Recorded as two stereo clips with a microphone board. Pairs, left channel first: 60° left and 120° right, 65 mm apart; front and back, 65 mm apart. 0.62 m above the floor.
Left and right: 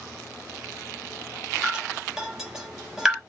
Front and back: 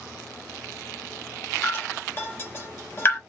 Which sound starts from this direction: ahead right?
Dripping, at 1.6 s.